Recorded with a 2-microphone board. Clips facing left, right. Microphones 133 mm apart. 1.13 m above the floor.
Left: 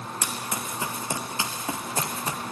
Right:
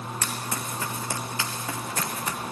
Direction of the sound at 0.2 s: 15° left (ahead or behind).